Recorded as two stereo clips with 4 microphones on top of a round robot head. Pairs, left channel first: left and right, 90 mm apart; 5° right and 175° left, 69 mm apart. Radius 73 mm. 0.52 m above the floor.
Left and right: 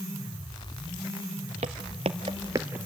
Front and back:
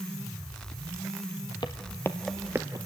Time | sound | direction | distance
1.6 | footsteps | 60° right | 0.8 m